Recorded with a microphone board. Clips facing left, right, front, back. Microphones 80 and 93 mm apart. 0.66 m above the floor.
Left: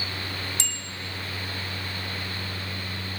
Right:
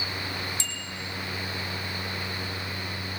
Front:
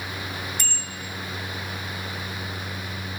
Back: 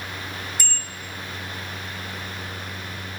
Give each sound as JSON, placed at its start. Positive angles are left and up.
{"t": 0.6, "sound": "a bicycle bell", "azimuth_deg": 95, "distance_m": 2.0}